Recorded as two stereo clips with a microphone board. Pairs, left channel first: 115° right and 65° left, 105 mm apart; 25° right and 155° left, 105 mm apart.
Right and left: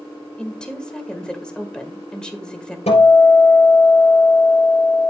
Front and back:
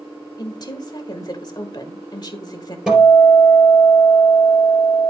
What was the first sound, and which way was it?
A woman speaking, 35° right.